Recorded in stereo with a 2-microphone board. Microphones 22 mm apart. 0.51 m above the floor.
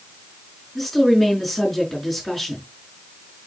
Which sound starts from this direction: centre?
A woman speaking, at 0.8 s.